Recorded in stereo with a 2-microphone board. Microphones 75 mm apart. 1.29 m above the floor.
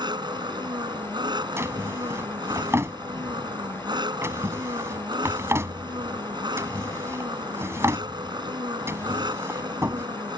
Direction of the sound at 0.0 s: 80° right.